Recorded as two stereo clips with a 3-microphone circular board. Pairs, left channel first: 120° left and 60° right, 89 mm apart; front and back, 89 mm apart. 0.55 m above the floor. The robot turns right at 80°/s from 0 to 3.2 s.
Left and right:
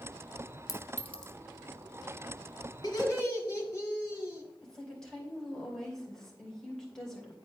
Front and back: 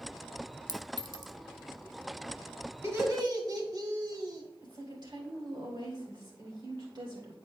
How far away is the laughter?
About 1.6 m.